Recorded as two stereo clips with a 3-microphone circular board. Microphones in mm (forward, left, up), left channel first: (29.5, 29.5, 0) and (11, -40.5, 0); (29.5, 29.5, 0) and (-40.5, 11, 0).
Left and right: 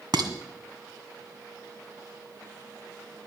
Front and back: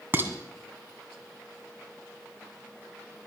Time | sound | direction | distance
0.1 | dishes clattering | 105° right | 1.8 m